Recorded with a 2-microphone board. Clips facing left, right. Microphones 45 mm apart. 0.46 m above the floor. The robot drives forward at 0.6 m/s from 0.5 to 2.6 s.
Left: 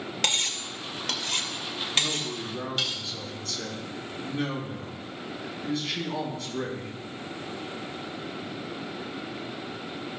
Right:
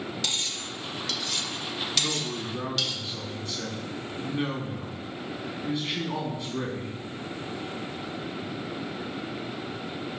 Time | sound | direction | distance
0.2 | cutlery clinking | 55° left (ahead or behind) | 0.8 m
1.9 | a man speaking | 20° right (ahead or behind) | 3 m